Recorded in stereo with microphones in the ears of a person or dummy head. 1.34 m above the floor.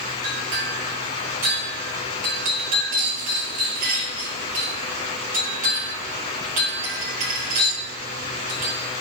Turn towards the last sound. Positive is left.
turn(degrees=-40)  # may be behind; listen again after turning